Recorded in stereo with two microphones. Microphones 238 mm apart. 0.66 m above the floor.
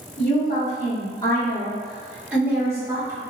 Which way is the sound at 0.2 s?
40° left (ahead or behind).